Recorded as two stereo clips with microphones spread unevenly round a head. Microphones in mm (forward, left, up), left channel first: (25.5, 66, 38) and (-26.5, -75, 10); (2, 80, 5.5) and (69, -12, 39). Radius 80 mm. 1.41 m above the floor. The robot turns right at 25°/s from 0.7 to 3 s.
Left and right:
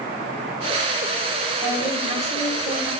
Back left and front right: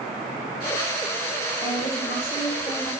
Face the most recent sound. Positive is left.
turn(degrees=-145)